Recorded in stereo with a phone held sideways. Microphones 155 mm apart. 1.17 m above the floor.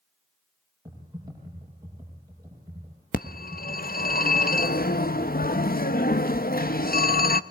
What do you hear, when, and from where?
0.8 s typing on a keyboard: 25° right (ahead or behind), 8.5 m
3.1 s a phone ringing: 70° left (ahead or behind), 1.0 m